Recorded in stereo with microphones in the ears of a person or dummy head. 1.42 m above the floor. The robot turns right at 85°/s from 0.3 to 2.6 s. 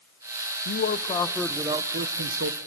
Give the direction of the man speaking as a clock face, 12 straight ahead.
8 o'clock.